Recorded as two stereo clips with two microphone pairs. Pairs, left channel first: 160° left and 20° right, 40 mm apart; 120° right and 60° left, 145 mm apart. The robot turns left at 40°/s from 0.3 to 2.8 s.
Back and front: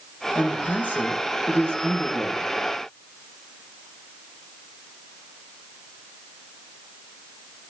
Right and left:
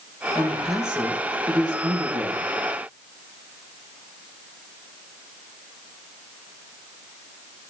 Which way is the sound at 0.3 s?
165° left.